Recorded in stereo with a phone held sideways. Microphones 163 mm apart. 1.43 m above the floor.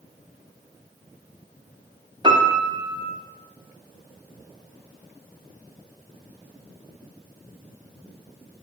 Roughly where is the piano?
Right.